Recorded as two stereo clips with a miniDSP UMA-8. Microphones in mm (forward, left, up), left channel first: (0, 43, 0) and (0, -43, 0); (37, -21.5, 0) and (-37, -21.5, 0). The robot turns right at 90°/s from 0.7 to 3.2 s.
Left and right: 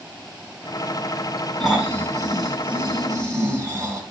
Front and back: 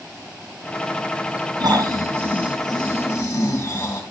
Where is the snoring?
175° left, 4.5 m; by 4.0 s 40° right, 4.5 m.